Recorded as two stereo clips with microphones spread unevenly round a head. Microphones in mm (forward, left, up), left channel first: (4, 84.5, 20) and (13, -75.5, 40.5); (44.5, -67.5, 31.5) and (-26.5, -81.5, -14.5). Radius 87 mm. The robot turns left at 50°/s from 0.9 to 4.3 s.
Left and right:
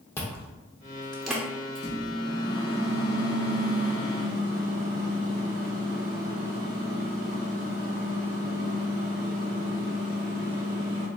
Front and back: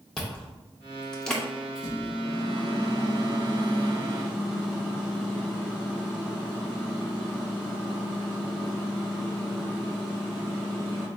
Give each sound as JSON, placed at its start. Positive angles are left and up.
{"t": 0.2, "sound": "chewing", "azimuth_deg": 10, "distance_m": 0.6}
{"t": 1.8, "sound": "a microwave", "azimuth_deg": 55, "distance_m": 1.7}